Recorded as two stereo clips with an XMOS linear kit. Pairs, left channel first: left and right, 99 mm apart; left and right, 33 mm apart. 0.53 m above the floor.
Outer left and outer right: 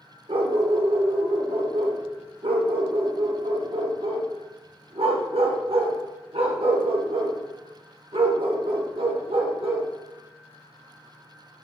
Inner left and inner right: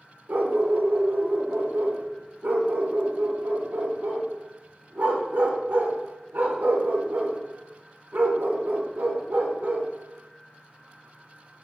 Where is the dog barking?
70° right (ahead or behind), 0.6 m.